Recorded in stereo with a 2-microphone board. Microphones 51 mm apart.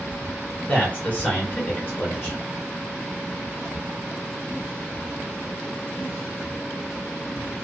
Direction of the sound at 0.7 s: 25° left (ahead or behind).